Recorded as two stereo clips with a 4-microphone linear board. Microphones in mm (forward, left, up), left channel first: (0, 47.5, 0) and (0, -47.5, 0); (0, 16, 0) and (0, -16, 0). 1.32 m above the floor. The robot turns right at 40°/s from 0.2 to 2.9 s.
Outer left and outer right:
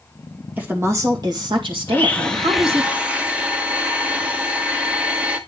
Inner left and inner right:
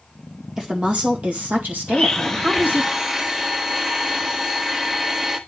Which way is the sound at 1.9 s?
155° left.